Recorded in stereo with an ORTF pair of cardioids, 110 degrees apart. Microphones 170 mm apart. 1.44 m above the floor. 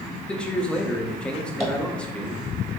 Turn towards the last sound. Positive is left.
turn(degrees=0)